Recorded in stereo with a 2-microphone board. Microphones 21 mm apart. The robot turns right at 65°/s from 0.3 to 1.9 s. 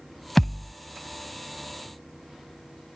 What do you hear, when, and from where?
0.4 s a thud: 20° left (ahead or behind); by 0.7 s 5° left (ahead or behind)